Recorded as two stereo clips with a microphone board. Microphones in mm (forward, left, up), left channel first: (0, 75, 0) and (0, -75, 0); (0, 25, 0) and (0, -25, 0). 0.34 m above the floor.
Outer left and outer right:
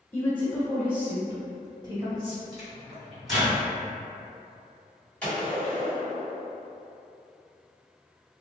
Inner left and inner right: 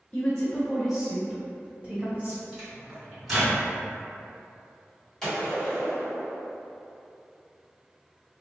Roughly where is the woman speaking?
Centre.